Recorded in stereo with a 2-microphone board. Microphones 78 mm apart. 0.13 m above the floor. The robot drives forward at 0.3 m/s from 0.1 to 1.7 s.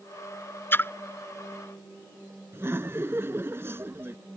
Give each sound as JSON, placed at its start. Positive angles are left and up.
{"t": 0.7, "sound": "a splash", "side_deg": 30}
{"t": 2.5, "sound": "laughter", "side_deg": -30}